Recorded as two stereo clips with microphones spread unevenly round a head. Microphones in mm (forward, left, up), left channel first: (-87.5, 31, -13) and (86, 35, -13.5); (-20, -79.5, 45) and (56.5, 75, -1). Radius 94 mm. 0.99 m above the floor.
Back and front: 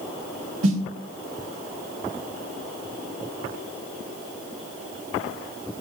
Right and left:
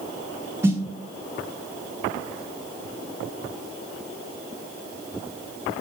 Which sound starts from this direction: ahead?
A snare drum, at 0.6 s.